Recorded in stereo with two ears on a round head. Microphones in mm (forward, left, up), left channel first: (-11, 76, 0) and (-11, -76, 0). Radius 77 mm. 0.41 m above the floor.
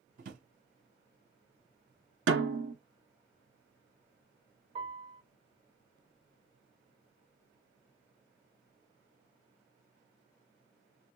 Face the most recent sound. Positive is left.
turn(degrees=-35)  # may be behind; listen again after turning